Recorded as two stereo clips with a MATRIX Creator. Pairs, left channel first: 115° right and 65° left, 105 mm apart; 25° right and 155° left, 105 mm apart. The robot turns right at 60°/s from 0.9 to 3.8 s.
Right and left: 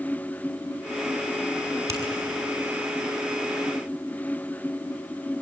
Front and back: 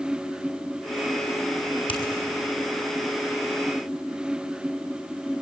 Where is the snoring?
No snoring in this recording.